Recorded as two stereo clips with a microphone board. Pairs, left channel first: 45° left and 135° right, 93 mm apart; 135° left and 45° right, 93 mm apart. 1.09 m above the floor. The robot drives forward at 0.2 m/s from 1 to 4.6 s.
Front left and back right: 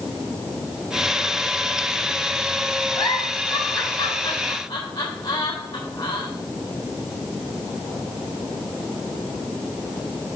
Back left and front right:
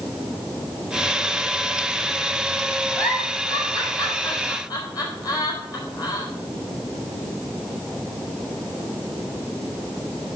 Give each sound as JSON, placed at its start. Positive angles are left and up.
{"t": 3.0, "sound": "a giggle", "azimuth_deg": 85, "distance_m": 3.5}